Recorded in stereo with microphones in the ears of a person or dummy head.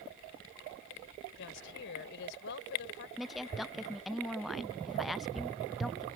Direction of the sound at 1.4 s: 65° left (ahead or behind).